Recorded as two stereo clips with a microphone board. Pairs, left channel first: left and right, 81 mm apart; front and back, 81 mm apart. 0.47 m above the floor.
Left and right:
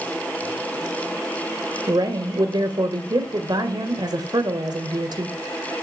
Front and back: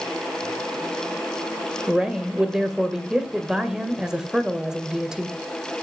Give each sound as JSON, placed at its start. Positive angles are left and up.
{"t": 1.9, "sound": "a woman speaking", "azimuth_deg": -100, "distance_m": 2.0}